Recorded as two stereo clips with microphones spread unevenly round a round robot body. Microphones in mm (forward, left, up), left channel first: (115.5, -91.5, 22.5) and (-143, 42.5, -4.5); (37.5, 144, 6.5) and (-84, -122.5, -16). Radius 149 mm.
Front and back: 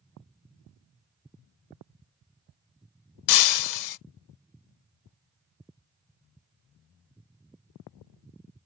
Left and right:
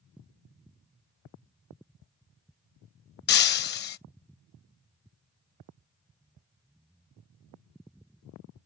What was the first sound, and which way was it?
Breaking glass, 5° left.